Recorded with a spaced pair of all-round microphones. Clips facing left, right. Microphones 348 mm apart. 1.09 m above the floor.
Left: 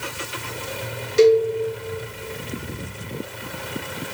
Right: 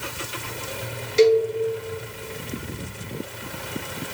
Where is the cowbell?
20° left (ahead or behind), 0.6 m.